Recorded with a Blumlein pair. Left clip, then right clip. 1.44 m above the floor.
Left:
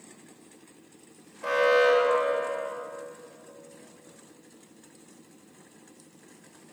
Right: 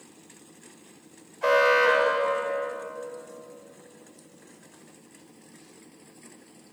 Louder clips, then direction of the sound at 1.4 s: Right 2 dB; 25° right.